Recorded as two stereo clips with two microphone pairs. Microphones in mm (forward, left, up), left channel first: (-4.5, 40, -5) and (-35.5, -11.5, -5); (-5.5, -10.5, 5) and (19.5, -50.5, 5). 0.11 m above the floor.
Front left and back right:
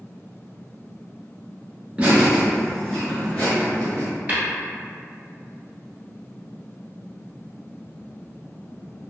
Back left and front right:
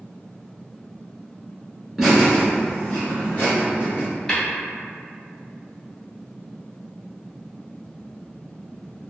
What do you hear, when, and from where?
2.0 s laughter: 125° right, 1.1 m; by 4.0 s 105° left, 1.6 m
4.3 s tapping: 165° right, 1.3 m